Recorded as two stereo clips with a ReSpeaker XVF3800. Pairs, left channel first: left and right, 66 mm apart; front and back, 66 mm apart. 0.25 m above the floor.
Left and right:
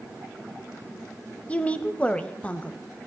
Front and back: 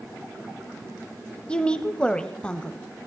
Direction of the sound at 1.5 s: 55° left.